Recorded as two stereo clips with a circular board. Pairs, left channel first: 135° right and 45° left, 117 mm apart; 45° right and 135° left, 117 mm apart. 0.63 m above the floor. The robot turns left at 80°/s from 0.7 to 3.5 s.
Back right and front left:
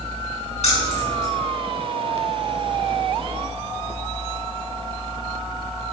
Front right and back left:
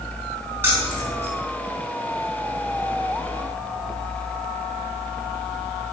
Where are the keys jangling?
155° right, 4.5 m; by 1.3 s 155° left, 4.5 m.